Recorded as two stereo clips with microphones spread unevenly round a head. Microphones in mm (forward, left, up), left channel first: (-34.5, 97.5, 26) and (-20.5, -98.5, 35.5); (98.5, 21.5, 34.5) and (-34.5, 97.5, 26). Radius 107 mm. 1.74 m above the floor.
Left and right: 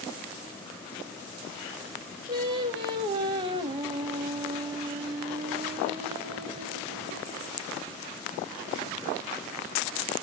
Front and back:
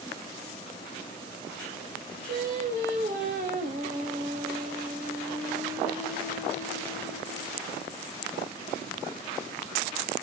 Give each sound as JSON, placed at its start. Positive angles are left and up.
{"t": 2.3, "sound": "singing", "azimuth_deg": -155, "distance_m": 1.1}